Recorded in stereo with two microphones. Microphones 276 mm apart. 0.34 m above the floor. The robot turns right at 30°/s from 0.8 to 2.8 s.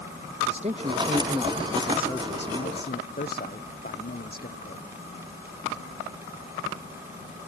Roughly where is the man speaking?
Ahead right.